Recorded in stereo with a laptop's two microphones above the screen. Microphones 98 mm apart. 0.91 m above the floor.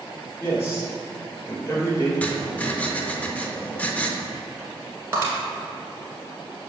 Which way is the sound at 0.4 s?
30° left (ahead or behind).